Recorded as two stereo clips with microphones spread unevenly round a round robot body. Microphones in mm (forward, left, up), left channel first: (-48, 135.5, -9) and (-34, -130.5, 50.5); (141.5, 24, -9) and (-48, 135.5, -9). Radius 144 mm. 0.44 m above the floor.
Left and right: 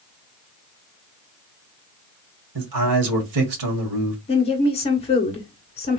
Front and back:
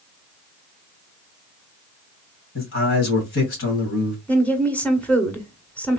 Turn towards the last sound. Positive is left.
turn(degrees=50)